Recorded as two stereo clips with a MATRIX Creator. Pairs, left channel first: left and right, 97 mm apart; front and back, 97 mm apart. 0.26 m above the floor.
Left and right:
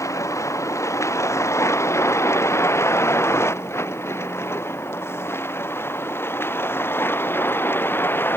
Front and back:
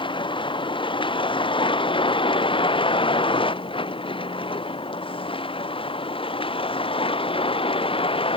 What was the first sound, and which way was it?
A vehicle, 35° left.